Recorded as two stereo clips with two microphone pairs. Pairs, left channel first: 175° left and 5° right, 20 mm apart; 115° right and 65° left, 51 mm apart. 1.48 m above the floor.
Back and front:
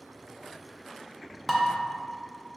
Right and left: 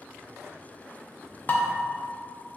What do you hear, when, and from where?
1.5 s dishes clattering: 90° right, 0.5 m